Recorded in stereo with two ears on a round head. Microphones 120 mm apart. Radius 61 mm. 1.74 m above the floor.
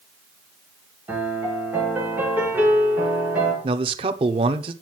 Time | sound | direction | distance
1.1 | a piano | 15° right (ahead or behind) | 4 m
3.6 | a man speaking | 40° right (ahead or behind) | 0.8 m